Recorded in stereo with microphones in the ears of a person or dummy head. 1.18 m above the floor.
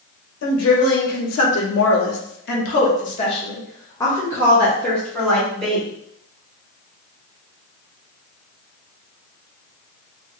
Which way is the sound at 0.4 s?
75° left (ahead or behind).